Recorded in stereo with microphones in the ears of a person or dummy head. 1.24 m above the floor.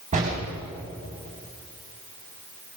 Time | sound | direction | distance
0.1 | a door slam | 45° right (ahead or behind) | 6 m